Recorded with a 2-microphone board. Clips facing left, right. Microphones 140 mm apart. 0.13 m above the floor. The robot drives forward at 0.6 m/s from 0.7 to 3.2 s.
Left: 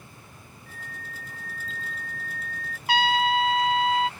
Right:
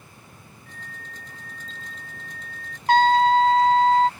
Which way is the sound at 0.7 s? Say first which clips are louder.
Left 1 dB; 40° left (ahead or behind).